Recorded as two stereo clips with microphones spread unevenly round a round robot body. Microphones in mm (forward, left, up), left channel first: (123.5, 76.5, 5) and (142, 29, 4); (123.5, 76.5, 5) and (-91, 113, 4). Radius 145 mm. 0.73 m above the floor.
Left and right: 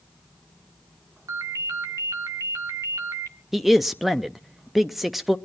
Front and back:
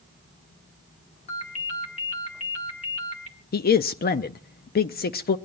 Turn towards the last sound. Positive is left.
turn(degrees=20)